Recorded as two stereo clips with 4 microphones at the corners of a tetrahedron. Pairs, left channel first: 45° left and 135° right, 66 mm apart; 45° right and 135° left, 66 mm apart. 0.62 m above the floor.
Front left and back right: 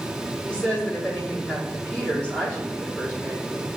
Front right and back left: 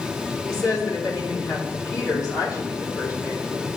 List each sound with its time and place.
0.5 s a woman speaking: 25° right, 1.4 m